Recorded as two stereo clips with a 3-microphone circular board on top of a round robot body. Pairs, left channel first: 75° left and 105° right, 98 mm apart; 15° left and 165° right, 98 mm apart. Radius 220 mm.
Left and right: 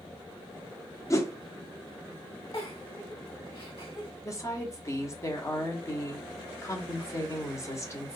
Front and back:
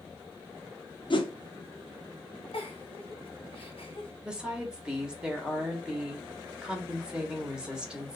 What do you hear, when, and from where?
1.1 s a whoosh: 20° left, 0.8 m
2.5 s a giggle: 35° left, 1.7 m
4.2 s a woman speaking: 115° left, 1.4 m